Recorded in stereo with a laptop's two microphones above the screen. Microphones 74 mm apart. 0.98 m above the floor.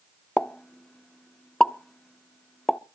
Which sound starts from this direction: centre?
A pop, at 0.4 s.